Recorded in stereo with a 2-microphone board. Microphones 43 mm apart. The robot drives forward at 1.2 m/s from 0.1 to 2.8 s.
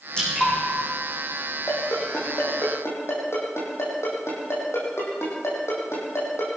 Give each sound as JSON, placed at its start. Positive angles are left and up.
{"t": 0.2, "sound": "dripping", "side_deg": 20, "distance_m": 10.0}
{"t": 1.7, "sound": "a ringtone", "side_deg": 85, "distance_m": 9.5}